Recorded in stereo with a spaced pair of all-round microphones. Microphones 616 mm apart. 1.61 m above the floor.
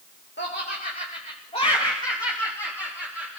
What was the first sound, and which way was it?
Laughter, 20° left (ahead or behind).